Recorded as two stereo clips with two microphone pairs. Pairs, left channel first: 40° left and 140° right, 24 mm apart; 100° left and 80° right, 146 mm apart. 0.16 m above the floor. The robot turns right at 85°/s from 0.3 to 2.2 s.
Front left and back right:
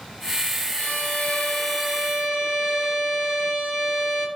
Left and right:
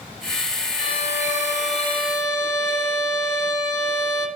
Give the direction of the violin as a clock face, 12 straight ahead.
10 o'clock.